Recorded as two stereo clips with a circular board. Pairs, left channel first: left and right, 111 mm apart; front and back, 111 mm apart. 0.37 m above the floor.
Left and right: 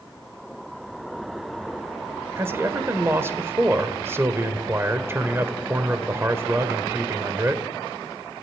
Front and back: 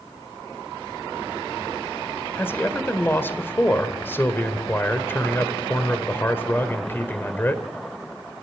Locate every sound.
2.4 s a man speaking: 50° right, 1.6 m